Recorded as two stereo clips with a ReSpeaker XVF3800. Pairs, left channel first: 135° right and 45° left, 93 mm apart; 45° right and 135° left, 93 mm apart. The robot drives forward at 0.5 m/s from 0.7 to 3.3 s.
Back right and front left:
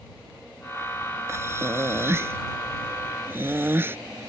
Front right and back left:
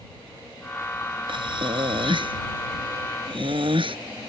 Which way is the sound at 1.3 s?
105° left.